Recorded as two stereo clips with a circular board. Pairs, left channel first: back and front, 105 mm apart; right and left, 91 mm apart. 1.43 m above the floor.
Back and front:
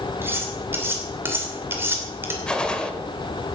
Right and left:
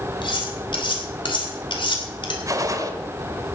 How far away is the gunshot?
About 1.4 m.